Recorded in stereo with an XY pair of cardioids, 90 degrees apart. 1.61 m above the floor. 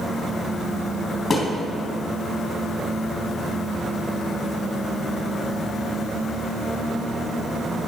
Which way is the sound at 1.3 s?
35° left.